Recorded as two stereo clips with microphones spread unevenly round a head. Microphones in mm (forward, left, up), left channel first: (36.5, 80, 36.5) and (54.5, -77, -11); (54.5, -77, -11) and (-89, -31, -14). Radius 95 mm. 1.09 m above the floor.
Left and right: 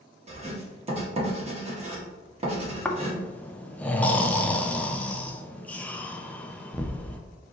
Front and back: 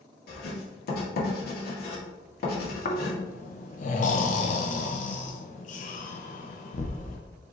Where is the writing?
35° right, 1.6 m.